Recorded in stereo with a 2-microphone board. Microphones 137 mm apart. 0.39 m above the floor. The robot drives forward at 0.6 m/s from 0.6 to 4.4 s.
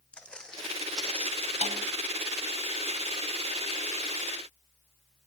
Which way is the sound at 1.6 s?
55° right (ahead or behind).